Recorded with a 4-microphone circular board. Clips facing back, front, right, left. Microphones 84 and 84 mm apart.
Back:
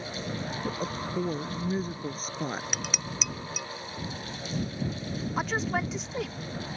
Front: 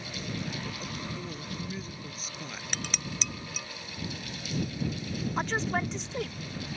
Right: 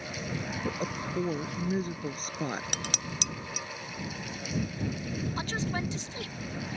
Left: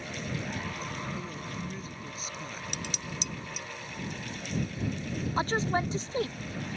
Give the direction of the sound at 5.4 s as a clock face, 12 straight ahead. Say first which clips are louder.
Back 1 dB, left 8 dB; 9 o'clock.